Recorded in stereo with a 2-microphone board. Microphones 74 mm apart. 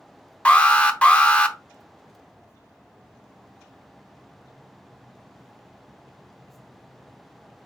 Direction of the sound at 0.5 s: 15° left (ahead or behind).